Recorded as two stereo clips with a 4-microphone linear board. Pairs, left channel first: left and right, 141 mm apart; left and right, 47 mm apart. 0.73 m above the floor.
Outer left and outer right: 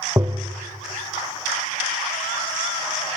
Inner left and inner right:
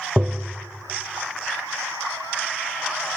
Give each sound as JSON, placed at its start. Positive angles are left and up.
{"t": 0.2, "sound": "tapping", "side_deg": -25, "distance_m": 0.8}